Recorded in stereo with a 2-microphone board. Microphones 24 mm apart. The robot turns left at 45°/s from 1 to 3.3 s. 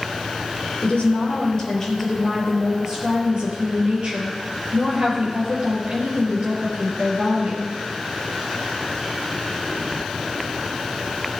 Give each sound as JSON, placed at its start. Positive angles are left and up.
{"t": 0.8, "sound": "a woman speaking", "azimuth_deg": 60, "distance_m": 4.5}